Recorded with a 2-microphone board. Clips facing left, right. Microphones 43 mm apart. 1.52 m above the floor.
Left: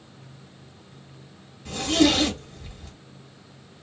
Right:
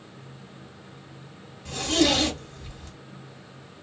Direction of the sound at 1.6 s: 5° left (ahead or behind).